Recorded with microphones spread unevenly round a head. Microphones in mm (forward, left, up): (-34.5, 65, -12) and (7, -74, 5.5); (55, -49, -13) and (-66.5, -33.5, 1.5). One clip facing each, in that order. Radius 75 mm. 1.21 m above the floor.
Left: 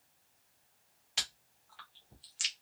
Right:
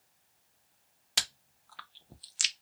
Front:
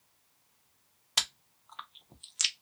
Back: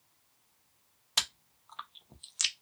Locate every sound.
1.2 s chewing: 95° right, 0.5 m